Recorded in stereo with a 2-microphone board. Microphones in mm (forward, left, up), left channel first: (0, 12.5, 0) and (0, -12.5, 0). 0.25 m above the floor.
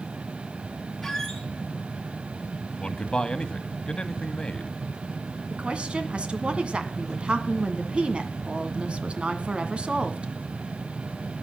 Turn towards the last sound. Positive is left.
turn(degrees=-50)  # may be behind; listen again after turning